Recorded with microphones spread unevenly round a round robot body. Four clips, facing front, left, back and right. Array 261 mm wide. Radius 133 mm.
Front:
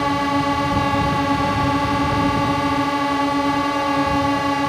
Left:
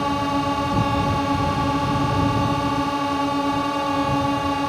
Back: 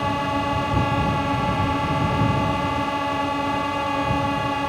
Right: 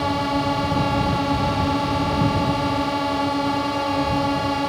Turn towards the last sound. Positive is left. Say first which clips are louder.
# even, front 4 dB
turn(degrees=5)